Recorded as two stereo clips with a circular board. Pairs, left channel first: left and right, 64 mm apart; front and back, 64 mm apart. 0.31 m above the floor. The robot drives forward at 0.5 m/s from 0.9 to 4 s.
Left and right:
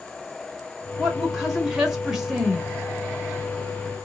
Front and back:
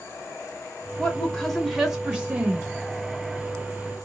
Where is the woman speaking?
20° right, 1.0 m; by 2.7 s 170° right, 1.1 m.